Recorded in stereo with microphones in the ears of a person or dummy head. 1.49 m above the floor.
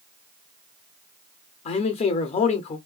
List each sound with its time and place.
1.6 s a man speaking: 40° left (ahead or behind), 0.7 m